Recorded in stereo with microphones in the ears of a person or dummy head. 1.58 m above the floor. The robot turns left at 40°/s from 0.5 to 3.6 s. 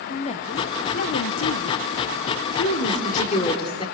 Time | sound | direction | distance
0.1 | a woman speaking | 145° left | 0.8 m
2.6 | a woman speaking | 70° left | 4 m